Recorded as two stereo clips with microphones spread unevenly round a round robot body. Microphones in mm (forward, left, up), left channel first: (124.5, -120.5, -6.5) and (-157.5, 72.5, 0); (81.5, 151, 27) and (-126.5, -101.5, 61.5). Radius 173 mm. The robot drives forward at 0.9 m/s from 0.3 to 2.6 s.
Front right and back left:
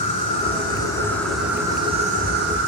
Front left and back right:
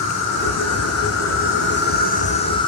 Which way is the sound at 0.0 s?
30° left.